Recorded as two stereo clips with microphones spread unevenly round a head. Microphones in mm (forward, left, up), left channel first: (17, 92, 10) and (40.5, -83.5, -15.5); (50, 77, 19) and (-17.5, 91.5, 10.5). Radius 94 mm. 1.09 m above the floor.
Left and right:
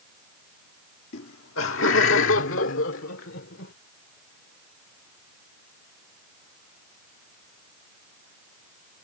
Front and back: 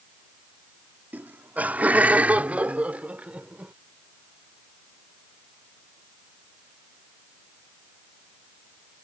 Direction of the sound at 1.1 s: 100° left.